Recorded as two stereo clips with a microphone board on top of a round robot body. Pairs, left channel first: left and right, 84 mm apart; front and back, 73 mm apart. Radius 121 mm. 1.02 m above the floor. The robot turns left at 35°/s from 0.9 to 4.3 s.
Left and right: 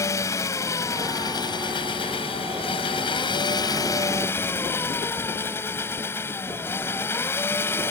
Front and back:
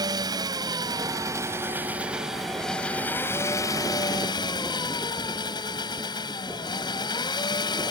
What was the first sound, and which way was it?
An engine running, 145° left.